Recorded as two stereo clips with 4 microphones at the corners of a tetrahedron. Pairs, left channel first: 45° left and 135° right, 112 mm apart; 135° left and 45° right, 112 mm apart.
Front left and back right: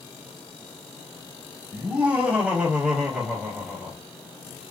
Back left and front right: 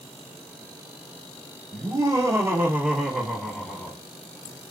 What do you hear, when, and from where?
1.7 s laughter: 65° right, 1.4 m; by 4.0 s 135° left, 1.1 m